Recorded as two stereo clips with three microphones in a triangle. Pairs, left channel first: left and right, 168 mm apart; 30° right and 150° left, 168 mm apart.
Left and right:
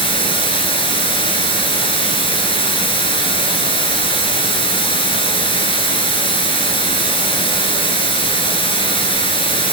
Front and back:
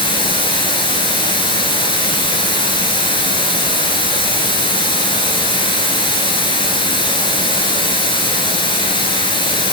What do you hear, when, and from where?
0.0 s running water: 30° left, 2.5 m